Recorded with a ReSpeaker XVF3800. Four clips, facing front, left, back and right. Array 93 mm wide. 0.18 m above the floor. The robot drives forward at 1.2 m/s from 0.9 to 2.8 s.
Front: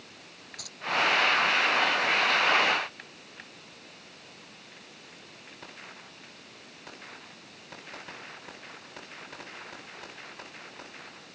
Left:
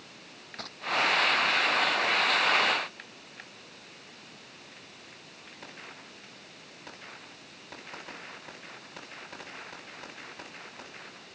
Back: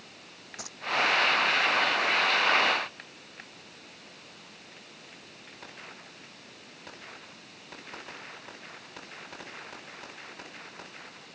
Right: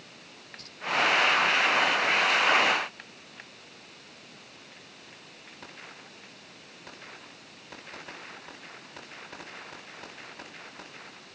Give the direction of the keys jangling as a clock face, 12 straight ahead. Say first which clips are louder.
Left 7 dB, back 4 dB; 8 o'clock.